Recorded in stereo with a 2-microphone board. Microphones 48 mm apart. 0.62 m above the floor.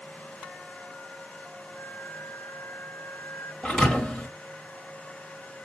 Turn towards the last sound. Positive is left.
turn(degrees=20)  # may be behind; listen again after turning